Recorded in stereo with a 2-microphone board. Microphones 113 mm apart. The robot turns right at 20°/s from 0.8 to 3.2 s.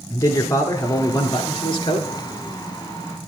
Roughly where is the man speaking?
Left.